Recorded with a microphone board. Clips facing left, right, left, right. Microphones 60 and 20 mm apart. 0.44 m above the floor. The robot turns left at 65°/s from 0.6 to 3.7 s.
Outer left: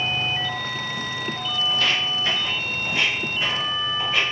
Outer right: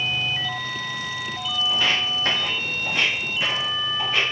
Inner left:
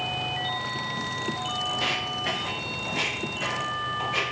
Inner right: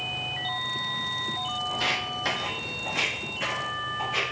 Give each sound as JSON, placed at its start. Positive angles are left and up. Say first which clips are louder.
{"t": 1.7, "sound": "footsteps", "louder": "outer right 1 dB, inner right 1 dB", "side_deg": -5, "distance_m": 1.0}